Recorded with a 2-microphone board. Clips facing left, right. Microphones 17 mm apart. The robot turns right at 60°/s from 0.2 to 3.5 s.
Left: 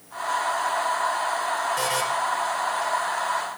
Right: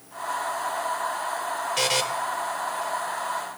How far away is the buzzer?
About 0.7 m.